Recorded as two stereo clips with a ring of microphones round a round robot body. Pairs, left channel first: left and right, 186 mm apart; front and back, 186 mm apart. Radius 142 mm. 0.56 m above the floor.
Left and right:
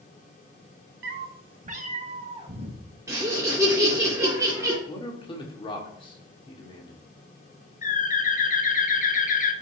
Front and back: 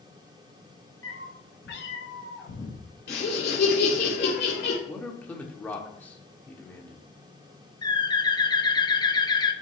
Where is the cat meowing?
75° right, 0.6 m; by 2.8 s 30° right, 2.0 m.